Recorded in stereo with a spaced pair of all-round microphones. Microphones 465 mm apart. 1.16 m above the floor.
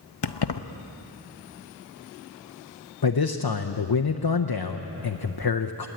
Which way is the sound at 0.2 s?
65° left (ahead or behind).